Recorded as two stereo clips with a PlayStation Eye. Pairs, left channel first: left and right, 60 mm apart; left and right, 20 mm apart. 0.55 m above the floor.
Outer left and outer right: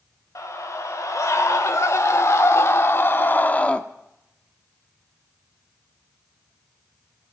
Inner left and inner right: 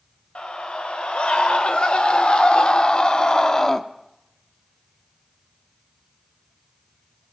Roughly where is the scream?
Left.